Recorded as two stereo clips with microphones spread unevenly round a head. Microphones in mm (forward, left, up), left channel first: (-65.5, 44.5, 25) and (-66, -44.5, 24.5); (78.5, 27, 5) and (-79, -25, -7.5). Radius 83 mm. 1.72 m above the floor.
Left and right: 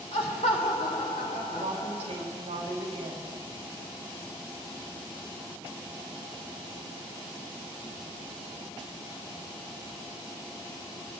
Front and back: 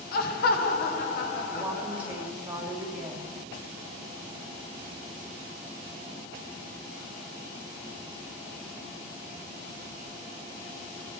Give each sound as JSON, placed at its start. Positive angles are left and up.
{"t": 0.1, "sound": "laughter", "azimuth_deg": 40, "distance_m": 1.1}
{"t": 1.5, "sound": "a woman speaking", "azimuth_deg": -85, "distance_m": 2.5}